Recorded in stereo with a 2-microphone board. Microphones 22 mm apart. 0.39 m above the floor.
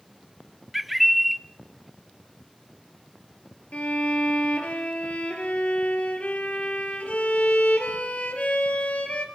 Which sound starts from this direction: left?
A violin, at 3.7 s.